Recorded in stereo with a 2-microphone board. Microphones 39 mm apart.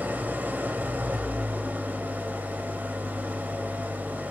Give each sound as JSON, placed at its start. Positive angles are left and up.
{"t": 0.0, "sound": "an engine running", "side_deg": -50, "distance_m": 1.4}